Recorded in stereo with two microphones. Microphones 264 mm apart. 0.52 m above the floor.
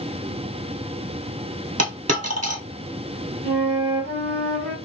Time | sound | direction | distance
1.8 | a dropped coin | 70° right (ahead or behind) | 1.5 m
3.4 | a flute | 45° right (ahead or behind) | 1.4 m